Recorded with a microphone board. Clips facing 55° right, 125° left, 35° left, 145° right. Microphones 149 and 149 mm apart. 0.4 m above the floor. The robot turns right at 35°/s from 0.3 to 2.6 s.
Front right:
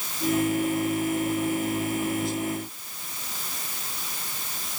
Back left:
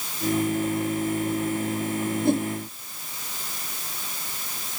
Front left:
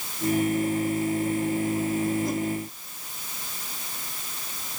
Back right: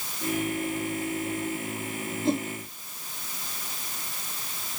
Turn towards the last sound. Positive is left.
turn(degrees=160)